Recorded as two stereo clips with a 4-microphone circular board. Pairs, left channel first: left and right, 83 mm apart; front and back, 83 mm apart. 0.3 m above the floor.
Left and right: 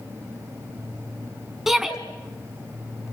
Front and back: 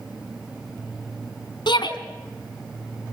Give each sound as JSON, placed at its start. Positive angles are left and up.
{"t": 1.7, "sound": "a shout", "azimuth_deg": -5, "distance_m": 2.5}